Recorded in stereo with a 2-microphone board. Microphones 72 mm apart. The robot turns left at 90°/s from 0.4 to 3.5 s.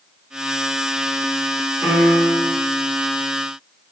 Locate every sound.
1.8 s a piano: 175° left, 1.5 m; by 2.5 s 110° left, 1.5 m